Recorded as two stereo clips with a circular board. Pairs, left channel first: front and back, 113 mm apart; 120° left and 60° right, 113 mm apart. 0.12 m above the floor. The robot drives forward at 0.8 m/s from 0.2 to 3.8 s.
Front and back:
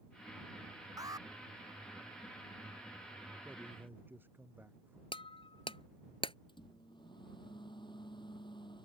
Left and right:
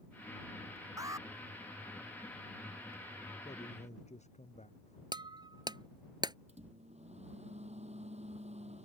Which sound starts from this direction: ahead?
Breaking glass, at 5.1 s.